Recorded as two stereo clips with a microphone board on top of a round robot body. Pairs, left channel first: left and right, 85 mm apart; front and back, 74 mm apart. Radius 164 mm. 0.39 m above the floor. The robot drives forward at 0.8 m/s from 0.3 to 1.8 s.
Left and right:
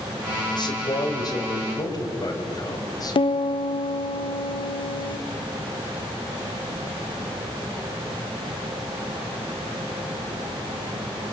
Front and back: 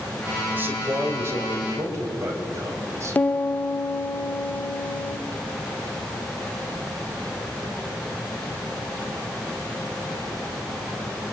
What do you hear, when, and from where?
0.5 s a man speaking: 115° left, 3.5 m; by 3.2 s 130° left, 4 m
3.1 s a piano: 70° left, 0.8 m